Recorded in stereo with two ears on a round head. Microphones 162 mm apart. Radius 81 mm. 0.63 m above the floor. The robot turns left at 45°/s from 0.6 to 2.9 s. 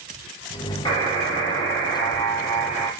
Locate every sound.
0.8 s a buzzer: 25° left (ahead or behind), 1.0 m; by 2.9 s 5° right (ahead or behind), 1.0 m